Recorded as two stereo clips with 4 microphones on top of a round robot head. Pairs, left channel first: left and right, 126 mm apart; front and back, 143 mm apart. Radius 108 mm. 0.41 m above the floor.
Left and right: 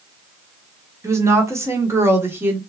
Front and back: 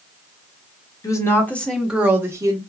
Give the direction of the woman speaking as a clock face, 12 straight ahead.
1 o'clock.